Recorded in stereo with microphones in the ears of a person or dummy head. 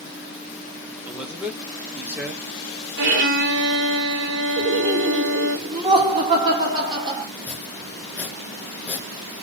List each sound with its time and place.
1.1 s a man speaking: 5° right (ahead or behind), 0.9 m
3.0 s a violin: 45° right (ahead or behind), 1.2 m
4.6 s laughter: 25° right (ahead or behind), 2 m
7.3 s chopping: 5° left (ahead or behind), 0.8 m